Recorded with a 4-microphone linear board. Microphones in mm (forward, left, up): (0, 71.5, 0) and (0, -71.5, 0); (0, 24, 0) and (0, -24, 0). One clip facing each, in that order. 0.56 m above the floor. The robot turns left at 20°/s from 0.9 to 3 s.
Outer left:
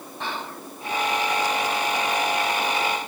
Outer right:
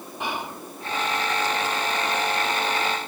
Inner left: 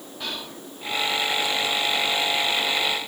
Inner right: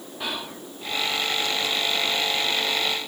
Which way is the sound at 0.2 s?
15° right (ahead or behind).